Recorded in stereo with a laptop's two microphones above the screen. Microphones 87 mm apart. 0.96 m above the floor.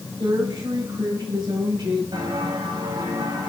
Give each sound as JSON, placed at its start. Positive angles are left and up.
{"t": 0.2, "sound": "a woman speaking", "side_deg": -70, "distance_m": 4.5}
{"t": 2.1, "sound": "footsteps", "side_deg": -65, "distance_m": 4.5}